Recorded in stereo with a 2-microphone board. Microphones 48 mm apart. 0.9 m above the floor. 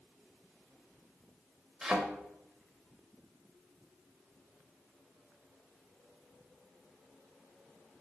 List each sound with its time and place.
1.8 s a thud: 10° right (ahead or behind), 0.6 m